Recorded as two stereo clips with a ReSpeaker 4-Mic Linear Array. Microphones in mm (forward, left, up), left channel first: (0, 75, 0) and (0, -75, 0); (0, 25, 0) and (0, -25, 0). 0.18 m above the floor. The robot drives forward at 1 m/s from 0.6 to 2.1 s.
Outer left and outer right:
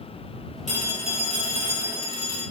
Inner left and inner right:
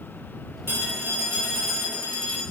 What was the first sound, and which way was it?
A phone ringing, 55° right (ahead or behind).